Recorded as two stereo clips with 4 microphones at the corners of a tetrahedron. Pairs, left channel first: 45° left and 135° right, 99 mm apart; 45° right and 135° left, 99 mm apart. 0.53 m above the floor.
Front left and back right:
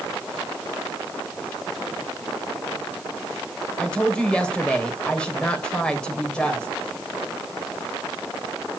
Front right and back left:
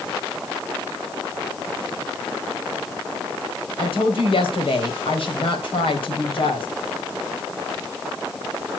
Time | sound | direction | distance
3.8 | a woman speaking | 35° right | 3 m